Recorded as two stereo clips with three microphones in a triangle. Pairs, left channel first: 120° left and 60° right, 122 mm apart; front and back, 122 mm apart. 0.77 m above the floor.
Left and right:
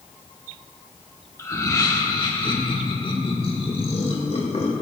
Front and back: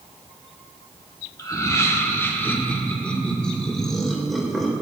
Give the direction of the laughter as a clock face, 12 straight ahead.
10 o'clock.